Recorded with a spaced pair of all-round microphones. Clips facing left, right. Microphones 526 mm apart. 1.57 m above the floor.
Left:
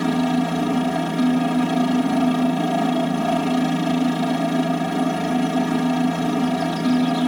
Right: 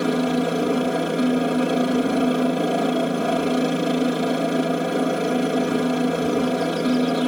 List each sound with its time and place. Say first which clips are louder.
0.0 s a helicopter: left 1 dB; 20° left (ahead or behind)